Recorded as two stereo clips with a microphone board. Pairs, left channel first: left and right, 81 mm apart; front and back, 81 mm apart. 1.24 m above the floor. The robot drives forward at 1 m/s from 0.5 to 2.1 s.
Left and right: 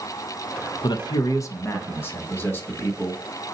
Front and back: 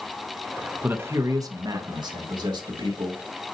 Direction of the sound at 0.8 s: 110° left.